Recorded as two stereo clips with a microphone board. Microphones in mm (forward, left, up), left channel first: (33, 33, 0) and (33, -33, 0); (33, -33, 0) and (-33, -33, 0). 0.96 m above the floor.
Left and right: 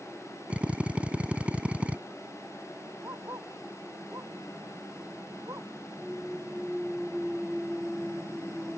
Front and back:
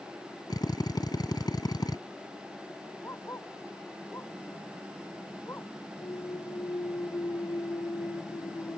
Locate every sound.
0.5 s a drill: 15° right
3.0 s a dog barking: 50° right
6.0 s a clunk: straight ahead